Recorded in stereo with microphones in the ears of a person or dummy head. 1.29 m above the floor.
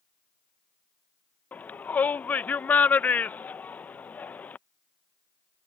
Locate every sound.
1.5 s a shout: 10° left (ahead or behind)